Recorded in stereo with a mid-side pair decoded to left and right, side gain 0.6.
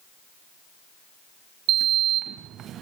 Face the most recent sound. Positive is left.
turn(degrees=-55)